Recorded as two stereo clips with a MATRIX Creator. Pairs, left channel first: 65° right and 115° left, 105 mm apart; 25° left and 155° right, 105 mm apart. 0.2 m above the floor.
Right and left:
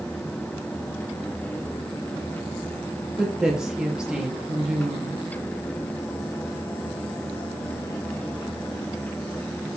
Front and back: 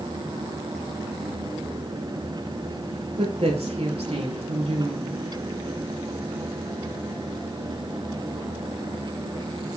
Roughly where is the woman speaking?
Behind.